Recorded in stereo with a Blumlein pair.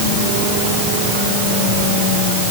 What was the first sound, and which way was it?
Only background noise.